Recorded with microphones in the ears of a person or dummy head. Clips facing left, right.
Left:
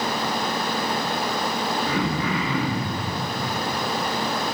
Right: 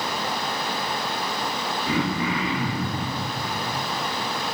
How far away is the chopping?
No chopping in this recording.